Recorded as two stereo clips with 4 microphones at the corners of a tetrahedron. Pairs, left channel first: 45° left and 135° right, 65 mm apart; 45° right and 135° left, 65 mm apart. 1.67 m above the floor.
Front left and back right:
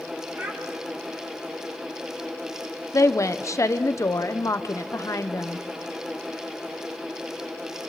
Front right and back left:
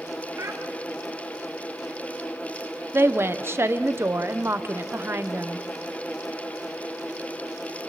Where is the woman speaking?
80° left, 1.0 m.